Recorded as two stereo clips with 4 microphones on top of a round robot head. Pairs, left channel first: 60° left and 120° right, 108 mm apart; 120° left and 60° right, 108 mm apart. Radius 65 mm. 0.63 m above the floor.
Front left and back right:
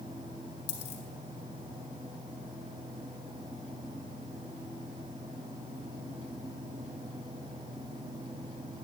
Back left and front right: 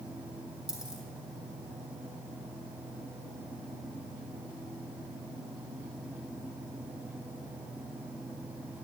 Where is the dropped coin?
25° left, 3 m.